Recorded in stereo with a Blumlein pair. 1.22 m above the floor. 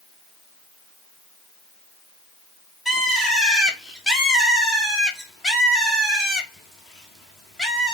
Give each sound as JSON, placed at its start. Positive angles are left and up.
{"t": 2.9, "sound": "a bird", "azimuth_deg": 10, "distance_m": 1.2}